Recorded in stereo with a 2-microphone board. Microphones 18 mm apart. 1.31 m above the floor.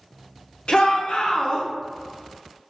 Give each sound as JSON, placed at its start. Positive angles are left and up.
{"t": 0.7, "sound": "a shout", "side_deg": 60, "distance_m": 0.8}